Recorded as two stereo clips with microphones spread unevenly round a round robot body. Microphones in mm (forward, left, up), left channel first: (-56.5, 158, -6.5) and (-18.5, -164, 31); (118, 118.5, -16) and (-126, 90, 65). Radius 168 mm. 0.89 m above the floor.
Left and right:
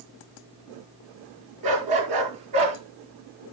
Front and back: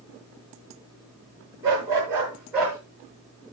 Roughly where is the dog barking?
Right.